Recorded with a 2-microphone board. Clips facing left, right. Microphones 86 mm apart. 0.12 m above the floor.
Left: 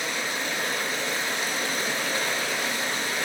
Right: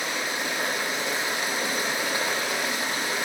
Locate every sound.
0.0 s running water: 15° right (ahead or behind), 5 m